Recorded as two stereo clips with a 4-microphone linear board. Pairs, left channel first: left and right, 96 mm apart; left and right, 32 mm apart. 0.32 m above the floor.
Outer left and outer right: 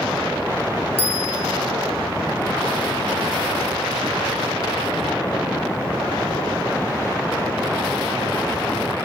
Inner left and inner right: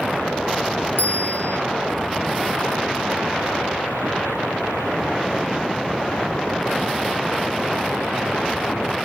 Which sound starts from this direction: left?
A bell, at 1.0 s.